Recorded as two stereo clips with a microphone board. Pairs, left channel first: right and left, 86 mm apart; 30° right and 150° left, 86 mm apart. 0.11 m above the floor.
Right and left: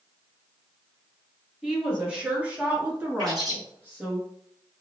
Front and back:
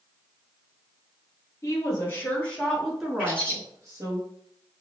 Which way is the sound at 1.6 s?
10° left.